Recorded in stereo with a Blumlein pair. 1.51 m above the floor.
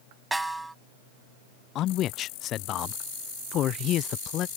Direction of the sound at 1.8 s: 35° left.